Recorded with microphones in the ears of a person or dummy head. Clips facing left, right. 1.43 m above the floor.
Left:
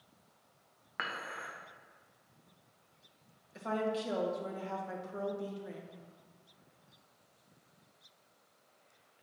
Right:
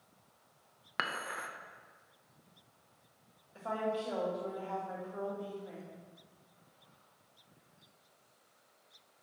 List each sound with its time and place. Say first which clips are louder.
1.0 s dishes clattering: right 2 dB; 60° right (ahead or behind), 0.7 m
3.5 s a woman speaking: left 1 dB; 25° left (ahead or behind), 1.7 m